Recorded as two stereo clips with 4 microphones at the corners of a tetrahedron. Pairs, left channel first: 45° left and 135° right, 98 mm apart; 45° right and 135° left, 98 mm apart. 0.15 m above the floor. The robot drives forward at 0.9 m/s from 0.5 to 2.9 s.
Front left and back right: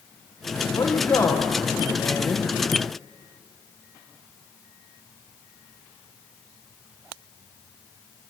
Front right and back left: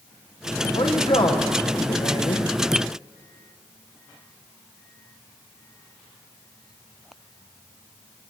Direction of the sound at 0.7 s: 20° right.